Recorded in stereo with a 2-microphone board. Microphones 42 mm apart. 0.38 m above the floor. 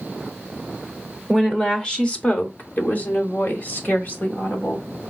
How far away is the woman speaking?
About 0.9 m.